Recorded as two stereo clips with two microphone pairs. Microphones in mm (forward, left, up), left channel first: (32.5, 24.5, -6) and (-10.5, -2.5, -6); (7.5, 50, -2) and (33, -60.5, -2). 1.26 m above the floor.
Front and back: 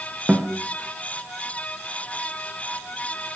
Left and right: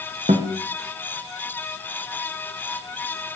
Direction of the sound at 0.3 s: 70° right.